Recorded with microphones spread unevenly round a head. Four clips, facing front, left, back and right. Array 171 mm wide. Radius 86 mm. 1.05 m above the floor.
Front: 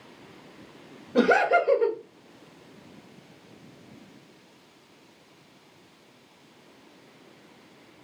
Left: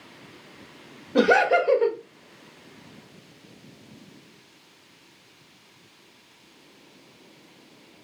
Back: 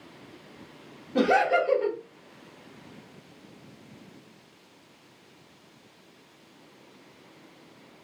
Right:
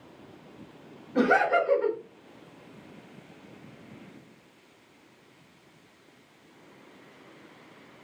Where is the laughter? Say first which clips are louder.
Left 4 dB, front 2 dB; 45° left, 0.9 m.